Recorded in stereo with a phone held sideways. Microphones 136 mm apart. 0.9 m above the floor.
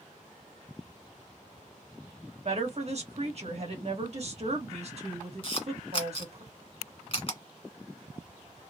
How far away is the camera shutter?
About 1.7 m.